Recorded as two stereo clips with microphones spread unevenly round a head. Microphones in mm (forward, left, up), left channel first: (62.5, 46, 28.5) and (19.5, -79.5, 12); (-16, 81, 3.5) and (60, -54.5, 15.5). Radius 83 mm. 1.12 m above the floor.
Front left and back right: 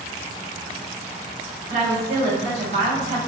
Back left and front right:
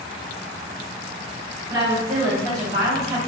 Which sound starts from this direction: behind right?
A woman speaking, at 1.7 s.